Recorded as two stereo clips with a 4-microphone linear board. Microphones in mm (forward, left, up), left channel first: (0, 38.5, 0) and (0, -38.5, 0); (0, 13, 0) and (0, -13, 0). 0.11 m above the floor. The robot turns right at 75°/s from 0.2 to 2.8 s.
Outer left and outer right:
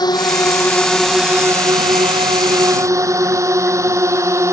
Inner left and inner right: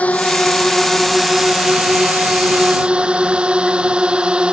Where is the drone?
60° left (ahead or behind); by 4.5 s 40° right (ahead or behind).